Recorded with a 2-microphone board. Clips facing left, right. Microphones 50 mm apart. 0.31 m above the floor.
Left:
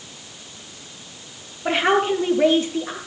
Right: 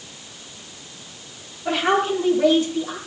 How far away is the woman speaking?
About 7 m.